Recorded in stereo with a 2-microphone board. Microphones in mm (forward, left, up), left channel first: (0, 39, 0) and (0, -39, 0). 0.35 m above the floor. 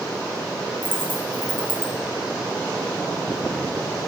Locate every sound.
0.8 s a dropped coin: 25° right (ahead or behind), 3.5 m